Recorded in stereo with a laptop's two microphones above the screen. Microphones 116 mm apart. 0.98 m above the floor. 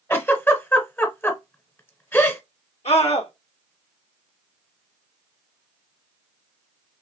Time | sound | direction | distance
0.1 | a giggle | 20° left (ahead or behind) | 1.3 m
2.9 | a scream | 65° left (ahead or behind) | 2.5 m